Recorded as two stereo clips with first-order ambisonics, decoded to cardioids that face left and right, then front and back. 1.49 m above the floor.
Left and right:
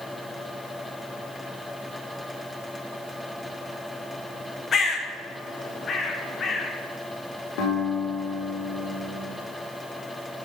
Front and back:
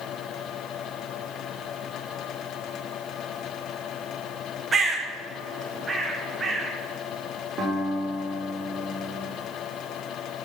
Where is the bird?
125° left, 0.6 m.